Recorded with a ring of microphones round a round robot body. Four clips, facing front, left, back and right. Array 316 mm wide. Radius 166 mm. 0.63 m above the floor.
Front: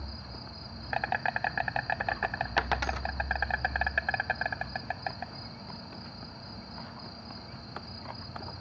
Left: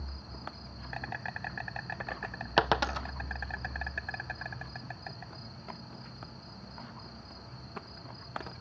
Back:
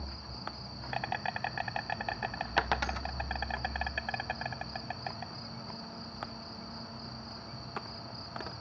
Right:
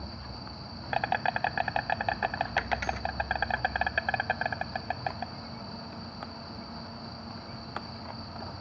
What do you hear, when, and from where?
0.0 s an insect: 70° right
2.6 s a dropped coin: 90° left